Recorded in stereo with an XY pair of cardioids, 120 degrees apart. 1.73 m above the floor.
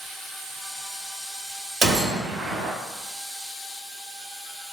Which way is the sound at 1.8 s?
50° right.